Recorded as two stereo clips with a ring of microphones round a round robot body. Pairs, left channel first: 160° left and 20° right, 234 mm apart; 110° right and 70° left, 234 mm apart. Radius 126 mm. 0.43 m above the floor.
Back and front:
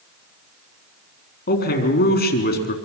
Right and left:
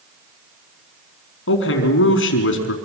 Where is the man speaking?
150° right, 4.5 m.